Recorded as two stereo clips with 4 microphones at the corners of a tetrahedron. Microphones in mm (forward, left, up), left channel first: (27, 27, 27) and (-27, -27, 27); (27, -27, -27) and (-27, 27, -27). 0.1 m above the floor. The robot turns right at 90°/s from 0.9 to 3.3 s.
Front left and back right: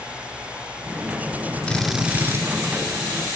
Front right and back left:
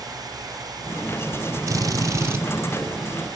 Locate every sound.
1.7 s a drill: 120° left, 2.5 m; by 2.4 s 175° right, 2.5 m